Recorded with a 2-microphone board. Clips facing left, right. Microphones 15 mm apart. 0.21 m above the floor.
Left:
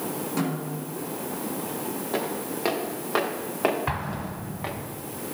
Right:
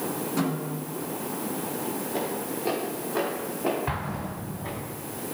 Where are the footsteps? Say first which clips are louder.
Left 1 dB; 90° left, 4.5 m; by 4.7 s 75° left (ahead or behind), 3.5 m.